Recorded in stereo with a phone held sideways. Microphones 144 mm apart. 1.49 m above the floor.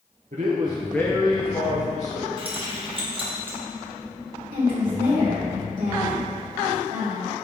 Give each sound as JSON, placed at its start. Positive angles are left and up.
{"t": 0.3, "sound": "a man speaking", "side_deg": -60, "distance_m": 0.9}
{"t": 2.4, "sound": "keys jangling", "side_deg": -40, "distance_m": 1.3}
{"t": 4.5, "sound": "a woman speaking", "side_deg": -75, "distance_m": 1.6}